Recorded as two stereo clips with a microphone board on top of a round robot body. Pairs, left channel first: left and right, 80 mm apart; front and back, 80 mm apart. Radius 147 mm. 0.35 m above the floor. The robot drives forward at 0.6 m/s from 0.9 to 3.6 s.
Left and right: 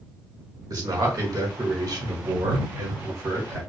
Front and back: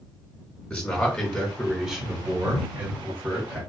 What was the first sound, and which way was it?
A man speaking, 70° right.